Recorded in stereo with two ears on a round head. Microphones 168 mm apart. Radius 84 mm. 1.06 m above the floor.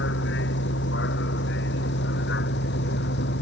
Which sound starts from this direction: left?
A vehicle, at 0.0 s.